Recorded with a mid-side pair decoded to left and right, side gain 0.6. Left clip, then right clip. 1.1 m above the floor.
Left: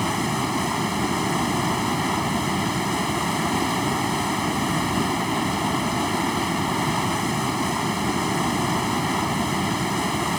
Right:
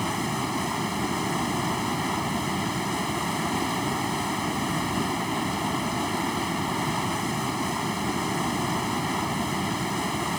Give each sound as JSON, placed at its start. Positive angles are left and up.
{"t": 0.0, "sound": "running water", "azimuth_deg": 20}